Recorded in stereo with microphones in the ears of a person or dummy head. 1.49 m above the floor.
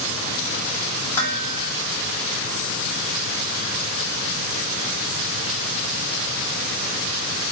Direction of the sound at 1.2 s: 20° left (ahead or behind).